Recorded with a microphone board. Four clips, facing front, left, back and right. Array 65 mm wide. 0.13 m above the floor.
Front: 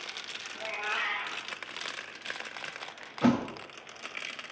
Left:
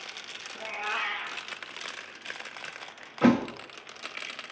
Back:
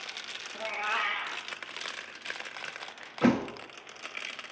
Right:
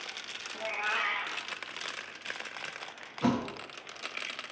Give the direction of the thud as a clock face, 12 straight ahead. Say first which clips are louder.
Left 7 dB, back 1 dB; 8 o'clock.